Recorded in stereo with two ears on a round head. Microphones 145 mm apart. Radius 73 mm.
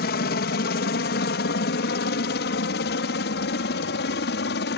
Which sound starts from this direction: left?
A helicopter, at 0.0 s.